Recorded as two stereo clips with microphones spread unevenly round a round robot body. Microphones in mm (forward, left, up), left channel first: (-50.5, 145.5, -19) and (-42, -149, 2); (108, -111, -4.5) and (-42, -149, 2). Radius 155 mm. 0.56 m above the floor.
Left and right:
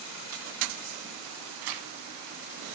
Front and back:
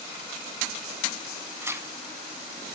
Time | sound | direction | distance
1.6 | tearing paper | 90° right | 1.6 m